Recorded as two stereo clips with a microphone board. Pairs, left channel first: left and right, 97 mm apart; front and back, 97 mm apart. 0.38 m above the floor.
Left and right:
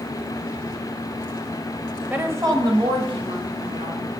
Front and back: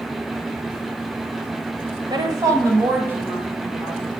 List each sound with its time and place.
2.1 s a woman speaking: 160° right, 1.2 m; by 4.1 s 100° right, 3 m